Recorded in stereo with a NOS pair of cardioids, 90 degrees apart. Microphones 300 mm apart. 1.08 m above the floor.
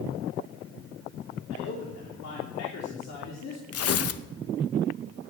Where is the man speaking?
60° left, 3 m.